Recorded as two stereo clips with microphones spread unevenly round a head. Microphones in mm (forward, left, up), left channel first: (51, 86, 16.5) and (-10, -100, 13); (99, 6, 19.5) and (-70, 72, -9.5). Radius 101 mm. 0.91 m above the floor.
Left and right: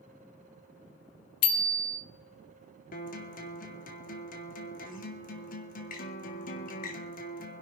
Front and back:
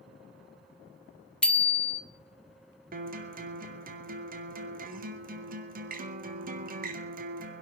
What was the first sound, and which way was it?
A bicycle bell, 65° left.